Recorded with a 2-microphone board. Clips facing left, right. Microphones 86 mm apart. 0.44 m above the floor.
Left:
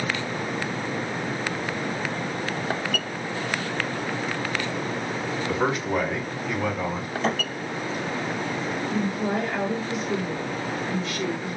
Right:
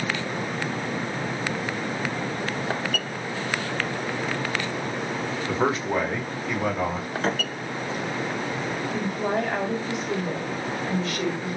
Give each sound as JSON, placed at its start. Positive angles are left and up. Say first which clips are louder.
{"t": 5.5, "sound": "a man speaking", "louder": "right 1 dB", "side_deg": -25, "distance_m": 0.9}
{"t": 7.2, "sound": "a thud", "louder": "left 1 dB", "side_deg": -80, "distance_m": 2.0}
{"t": 8.9, "sound": "a woman speaking", "louder": "even", "side_deg": -55, "distance_m": 1.3}